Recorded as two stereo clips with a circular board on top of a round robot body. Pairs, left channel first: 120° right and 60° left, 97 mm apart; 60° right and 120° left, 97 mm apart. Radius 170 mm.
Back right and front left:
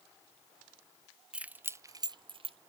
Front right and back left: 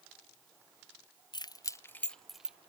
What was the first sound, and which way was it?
Keys jangling, 20° right.